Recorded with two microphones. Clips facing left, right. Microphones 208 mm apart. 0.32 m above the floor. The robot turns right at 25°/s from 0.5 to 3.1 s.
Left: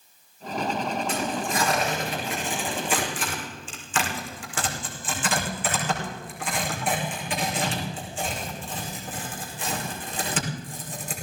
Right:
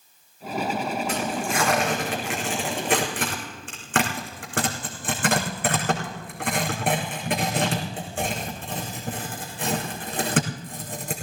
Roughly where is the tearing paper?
Right.